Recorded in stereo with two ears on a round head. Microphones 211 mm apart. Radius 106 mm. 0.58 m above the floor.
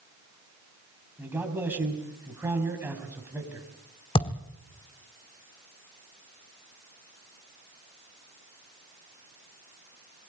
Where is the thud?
20° left (ahead or behind), 1.6 m.